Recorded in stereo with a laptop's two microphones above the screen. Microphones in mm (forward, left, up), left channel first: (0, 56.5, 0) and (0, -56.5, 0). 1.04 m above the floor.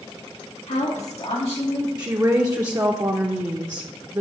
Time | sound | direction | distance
0.7 | a woman speaking | 80° left | 1.8 m
2.0 | a woman speaking | 35° right (ahead or behind) | 0.9 m